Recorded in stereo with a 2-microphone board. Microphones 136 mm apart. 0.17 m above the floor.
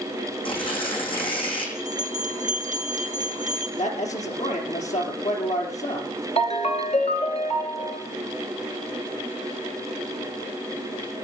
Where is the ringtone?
50° left (ahead or behind), 1.6 m.